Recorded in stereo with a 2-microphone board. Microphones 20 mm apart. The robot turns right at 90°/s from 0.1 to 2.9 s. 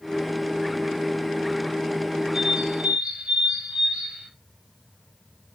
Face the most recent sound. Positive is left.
turn(degrees=-105)